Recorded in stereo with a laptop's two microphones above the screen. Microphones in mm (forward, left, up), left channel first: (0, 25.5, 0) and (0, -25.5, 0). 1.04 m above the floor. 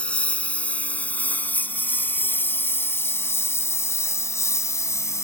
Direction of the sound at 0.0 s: 25° left (ahead or behind).